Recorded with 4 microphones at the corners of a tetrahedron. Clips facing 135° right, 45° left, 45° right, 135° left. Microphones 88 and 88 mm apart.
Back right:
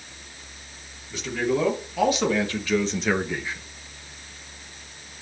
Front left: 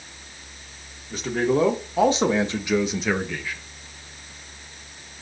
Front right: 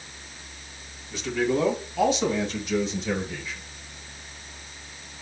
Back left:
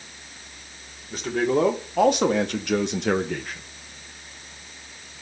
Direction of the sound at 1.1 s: 90° left.